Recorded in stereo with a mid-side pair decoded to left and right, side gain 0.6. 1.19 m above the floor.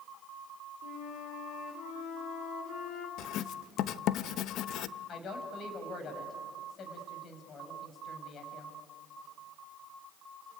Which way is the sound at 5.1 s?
45° left.